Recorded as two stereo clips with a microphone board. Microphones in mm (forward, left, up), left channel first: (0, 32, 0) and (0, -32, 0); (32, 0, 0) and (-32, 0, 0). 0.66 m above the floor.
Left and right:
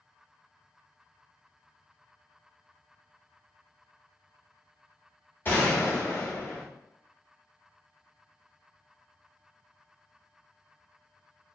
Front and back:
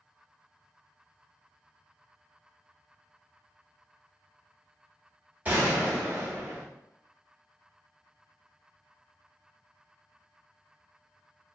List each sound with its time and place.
5.5 s a gunshot: 130° left, 1.4 m